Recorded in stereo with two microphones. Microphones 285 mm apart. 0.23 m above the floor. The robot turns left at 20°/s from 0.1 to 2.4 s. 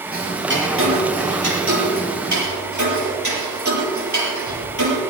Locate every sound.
0.1 s ticking: 30° right (ahead or behind), 5.5 m; by 5.0 s 70° right (ahead or behind), 5.5 m